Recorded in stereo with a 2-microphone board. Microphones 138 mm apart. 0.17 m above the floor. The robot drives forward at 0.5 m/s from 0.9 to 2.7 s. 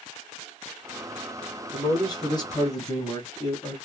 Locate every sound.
1.7 s a man speaking: 35° left (ahead or behind), 1.4 m; by 3.8 s 30° left (ahead or behind), 1.6 m